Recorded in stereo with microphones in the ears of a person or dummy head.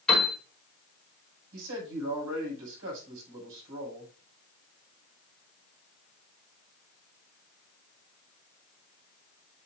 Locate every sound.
0.1 s a piano: 5° left (ahead or behind), 5 m
1.5 s a man speaking: 75° right (ahead or behind), 6.5 m